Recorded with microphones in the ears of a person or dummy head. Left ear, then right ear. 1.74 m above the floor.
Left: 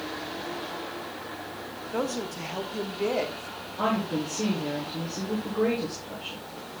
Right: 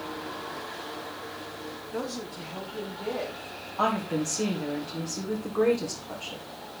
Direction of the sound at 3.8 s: 40° right (ahead or behind).